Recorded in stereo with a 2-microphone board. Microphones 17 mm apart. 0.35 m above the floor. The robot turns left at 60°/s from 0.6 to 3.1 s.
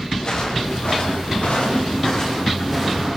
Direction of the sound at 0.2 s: 45° left (ahead or behind).